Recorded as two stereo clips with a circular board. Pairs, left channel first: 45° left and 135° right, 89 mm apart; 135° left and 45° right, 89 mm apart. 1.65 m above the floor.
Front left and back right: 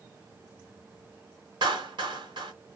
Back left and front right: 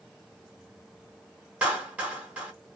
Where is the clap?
120° right, 1.3 m.